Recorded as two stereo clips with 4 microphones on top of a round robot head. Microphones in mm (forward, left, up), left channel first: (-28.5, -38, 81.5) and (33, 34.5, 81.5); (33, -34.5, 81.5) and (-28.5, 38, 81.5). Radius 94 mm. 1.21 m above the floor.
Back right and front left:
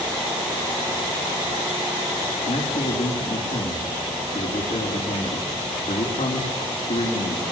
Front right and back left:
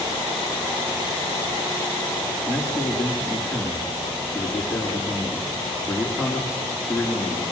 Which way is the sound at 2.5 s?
135° right.